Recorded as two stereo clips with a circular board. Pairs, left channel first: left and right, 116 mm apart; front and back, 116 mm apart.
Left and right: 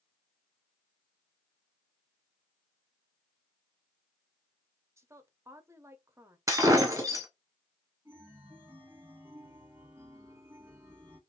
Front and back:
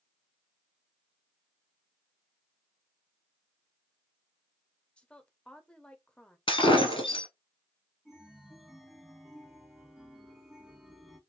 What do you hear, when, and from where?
5.0 s a woman speaking: 70° right, 0.7 m
6.5 s breaking glass: 30° right, 1.0 m
8.1 s a chime: 95° right, 1.3 m